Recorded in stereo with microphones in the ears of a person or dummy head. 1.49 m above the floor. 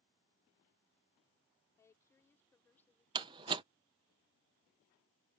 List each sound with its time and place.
1.8 s a woman speaking: 15° left (ahead or behind); by 3.0 s 10° left (ahead or behind)
3.1 s a door slam: 25° right (ahead or behind)